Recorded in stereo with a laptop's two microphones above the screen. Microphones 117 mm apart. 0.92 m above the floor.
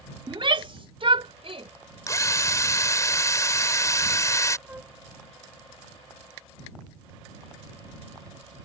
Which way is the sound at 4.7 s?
15° right (ahead or behind).